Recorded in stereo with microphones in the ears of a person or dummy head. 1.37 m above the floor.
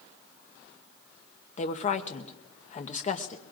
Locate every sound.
1.6 s a woman speaking: 40° left (ahead or behind), 0.9 m